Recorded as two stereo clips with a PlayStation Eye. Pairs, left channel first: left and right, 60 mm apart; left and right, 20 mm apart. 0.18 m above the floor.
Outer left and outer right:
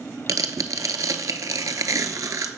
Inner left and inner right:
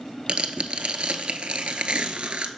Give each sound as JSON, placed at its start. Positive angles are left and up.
{"t": 0.3, "sound": "tearing paper", "side_deg": -65, "distance_m": 0.7}